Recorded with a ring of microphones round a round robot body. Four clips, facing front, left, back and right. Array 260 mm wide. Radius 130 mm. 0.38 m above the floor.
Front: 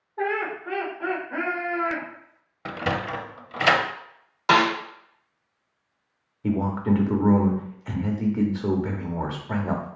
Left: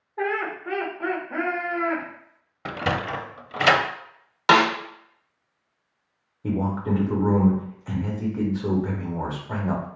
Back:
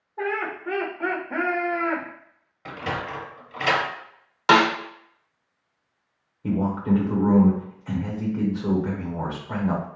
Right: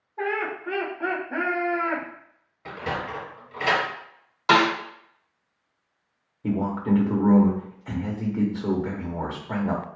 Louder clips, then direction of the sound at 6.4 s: Right 1 dB, even; 15° right.